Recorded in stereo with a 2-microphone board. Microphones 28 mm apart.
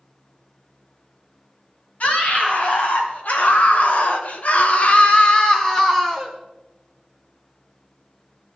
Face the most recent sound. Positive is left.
turn(degrees=10)  # may be behind; listen again after turning